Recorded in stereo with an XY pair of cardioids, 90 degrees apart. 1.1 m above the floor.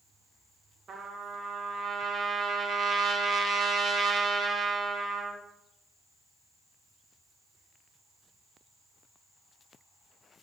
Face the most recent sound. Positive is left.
turn(degrees=-55)